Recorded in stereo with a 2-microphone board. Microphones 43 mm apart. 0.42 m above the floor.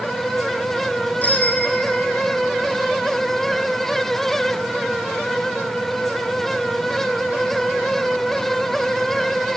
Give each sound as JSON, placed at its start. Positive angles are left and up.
{"t": 1.2, "sound": "a bicycle bell", "side_deg": 40, "distance_m": 4.0}